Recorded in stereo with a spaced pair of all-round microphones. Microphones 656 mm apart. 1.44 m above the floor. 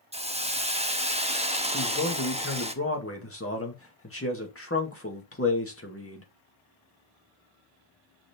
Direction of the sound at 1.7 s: 20° left (ahead or behind).